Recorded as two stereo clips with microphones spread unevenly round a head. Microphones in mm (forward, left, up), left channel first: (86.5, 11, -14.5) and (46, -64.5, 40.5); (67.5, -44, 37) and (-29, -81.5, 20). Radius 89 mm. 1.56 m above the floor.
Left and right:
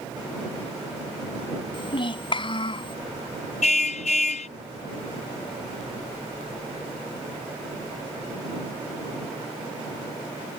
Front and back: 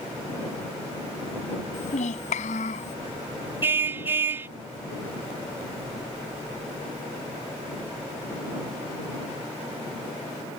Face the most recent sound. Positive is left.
turn(degrees=120)